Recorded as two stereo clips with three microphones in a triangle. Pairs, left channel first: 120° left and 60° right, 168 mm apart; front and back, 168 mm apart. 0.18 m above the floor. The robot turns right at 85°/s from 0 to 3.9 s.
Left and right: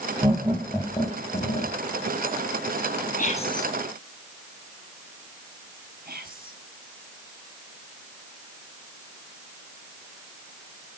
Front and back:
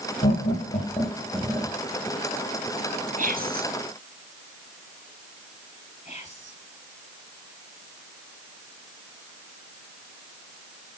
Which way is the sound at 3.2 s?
145° left.